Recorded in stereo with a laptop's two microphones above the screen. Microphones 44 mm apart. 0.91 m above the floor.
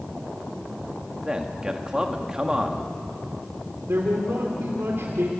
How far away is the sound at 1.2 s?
About 1.6 m.